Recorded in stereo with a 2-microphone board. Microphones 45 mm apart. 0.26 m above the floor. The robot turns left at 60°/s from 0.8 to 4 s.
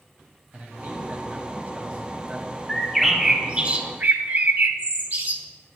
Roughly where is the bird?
Ahead.